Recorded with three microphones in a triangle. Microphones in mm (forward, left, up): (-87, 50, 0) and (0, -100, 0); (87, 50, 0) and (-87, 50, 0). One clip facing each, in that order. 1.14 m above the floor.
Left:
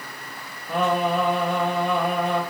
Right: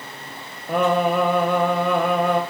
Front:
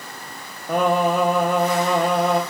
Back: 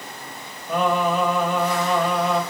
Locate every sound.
0.7 s singing: 35° right, 0.8 m